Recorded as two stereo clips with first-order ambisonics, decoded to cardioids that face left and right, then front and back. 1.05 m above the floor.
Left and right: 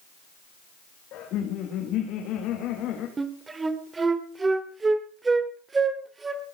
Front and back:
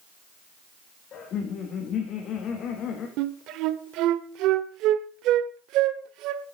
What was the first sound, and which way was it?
Laughter, 50° left.